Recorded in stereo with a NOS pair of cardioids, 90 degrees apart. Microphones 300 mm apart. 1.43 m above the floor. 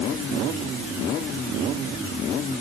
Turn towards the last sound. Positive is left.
No sound to turn to.